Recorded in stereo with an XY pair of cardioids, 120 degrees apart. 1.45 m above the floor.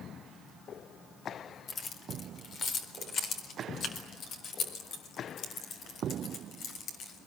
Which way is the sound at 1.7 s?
45° left.